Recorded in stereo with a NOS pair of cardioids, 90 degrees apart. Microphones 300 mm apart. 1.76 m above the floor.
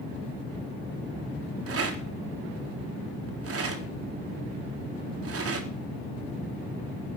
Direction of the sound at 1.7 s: 50° right.